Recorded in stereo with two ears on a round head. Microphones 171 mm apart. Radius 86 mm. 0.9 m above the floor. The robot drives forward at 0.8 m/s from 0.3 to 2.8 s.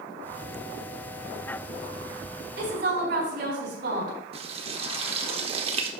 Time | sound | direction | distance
2.6 | a woman speaking | 65° right (ahead or behind) | 4 m
4.3 | frying | 35° right (ahead or behind) | 1.0 m